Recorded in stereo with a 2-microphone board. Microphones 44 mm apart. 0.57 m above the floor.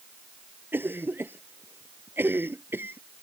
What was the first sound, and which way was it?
A cough, 55° right (ahead or behind).